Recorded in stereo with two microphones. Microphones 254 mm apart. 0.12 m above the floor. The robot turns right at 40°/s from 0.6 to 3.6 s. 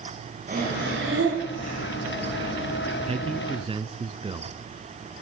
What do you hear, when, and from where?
0.5 s breathing: 145° right, 7.5 m; by 1.8 s 95° right, 7.5 m
3.0 s a man speaking: 25° right (ahead or behind), 1.2 m; by 4.5 s 20° right (ahead or behind), 1.2 m